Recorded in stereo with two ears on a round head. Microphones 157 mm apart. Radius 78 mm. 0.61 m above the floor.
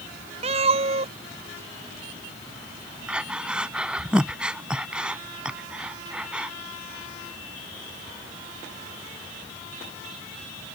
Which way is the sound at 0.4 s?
35° right (ahead or behind).